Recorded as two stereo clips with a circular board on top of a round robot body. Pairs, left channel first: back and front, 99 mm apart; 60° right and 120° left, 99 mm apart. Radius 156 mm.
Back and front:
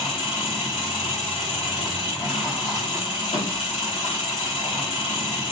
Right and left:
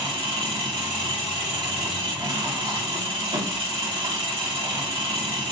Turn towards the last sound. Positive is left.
turn(degrees=145)